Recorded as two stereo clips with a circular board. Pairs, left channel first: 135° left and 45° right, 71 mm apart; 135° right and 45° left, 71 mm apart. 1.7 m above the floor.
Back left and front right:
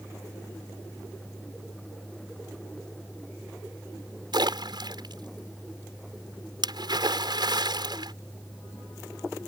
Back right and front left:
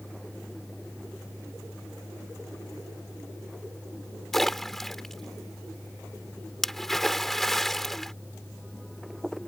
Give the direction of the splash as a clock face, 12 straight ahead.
2 o'clock.